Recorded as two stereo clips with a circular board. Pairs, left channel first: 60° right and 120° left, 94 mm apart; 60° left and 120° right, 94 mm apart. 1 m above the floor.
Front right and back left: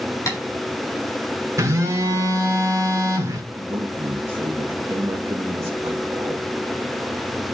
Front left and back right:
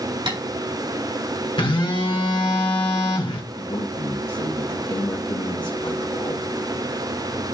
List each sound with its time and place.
0.3 s tapping: 115° right, 3.5 m
1.6 s a phone buzzing: 70° left, 1.5 m
3.5 s a man speaking: 65° left, 1.7 m